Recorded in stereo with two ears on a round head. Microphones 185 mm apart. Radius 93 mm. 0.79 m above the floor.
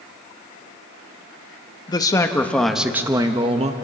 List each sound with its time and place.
1.9 s a man speaking: 20° left (ahead or behind), 1.3 m; by 3.7 s 30° right (ahead or behind), 1.1 m